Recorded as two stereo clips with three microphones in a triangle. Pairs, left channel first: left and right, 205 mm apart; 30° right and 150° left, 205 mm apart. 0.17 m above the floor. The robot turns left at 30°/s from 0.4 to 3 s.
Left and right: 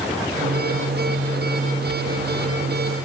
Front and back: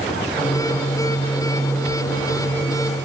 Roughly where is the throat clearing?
No throat clearing in this recording.